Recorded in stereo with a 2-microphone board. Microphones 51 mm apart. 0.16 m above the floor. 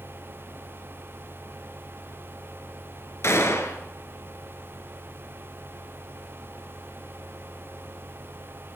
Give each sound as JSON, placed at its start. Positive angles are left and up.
{"t": 3.2, "sound": "a gunshot", "side_deg": 60, "distance_m": 2.5}